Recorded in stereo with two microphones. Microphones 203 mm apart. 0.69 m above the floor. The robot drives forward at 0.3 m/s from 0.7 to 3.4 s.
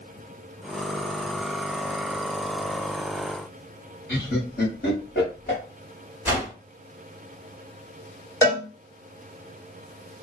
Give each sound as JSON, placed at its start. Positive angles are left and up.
{"t": 4.1, "sound": "laughter", "side_deg": 55, "distance_m": 1.0}
{"t": 6.2, "sound": "a whoosh", "side_deg": -5, "distance_m": 1.5}
{"t": 8.4, "sound": "a cowbell", "side_deg": 15, "distance_m": 1.7}